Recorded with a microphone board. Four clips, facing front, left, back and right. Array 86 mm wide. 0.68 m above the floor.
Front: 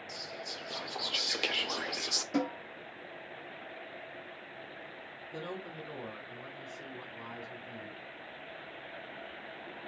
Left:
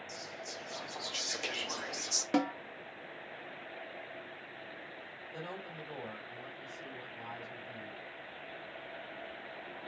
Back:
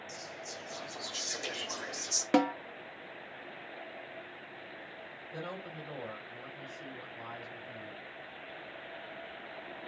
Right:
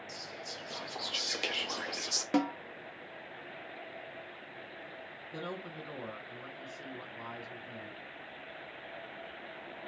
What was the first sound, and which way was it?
Whispering, 25° right.